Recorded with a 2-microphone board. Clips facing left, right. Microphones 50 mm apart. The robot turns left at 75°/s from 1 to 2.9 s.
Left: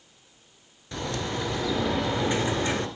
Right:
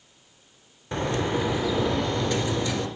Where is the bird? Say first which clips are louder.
Right 5 dB; 125° right, 0.9 m; by 2.9 s 95° left, 0.9 m.